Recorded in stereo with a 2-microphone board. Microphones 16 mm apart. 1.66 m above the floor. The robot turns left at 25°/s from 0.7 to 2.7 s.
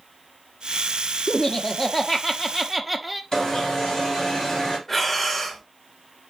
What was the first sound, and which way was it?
Laughter, 35° left.